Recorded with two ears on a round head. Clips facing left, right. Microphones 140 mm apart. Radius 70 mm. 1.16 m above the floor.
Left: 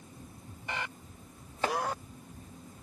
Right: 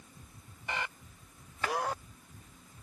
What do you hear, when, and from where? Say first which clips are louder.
1.6 s chopping: left 3 dB; 25° left (ahead or behind), 0.6 m